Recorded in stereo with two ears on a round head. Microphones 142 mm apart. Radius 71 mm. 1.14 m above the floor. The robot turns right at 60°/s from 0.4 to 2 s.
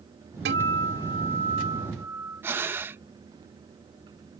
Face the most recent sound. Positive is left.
turn(degrees=-15)  # may be behind; listen again after turning